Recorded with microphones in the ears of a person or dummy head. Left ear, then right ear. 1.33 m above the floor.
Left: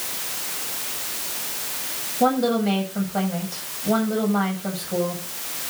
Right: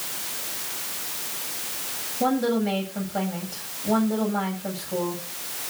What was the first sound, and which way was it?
A woman speaking, 10° left (ahead or behind).